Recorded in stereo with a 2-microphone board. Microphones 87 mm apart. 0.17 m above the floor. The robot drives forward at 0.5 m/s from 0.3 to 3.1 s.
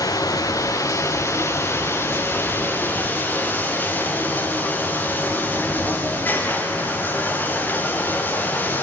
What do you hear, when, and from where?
0.0 s running water: 45° left (ahead or behind), 1.3 m; by 8.8 s 20° left (ahead or behind), 2.5 m